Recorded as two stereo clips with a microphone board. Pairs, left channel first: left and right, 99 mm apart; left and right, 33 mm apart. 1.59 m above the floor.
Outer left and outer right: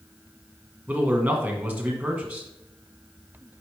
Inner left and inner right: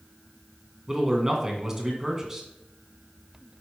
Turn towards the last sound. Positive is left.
turn(degrees=-15)  # may be behind; listen again after turning